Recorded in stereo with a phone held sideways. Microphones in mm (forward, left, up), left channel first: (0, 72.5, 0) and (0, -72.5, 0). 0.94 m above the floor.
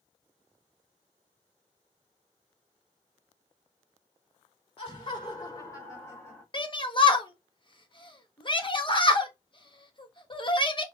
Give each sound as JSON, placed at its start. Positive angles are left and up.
{"t": 4.8, "sound": "laughter", "side_deg": 40, "distance_m": 3.5}
{"t": 6.5, "sound": "a shout", "side_deg": 35, "distance_m": 1.2}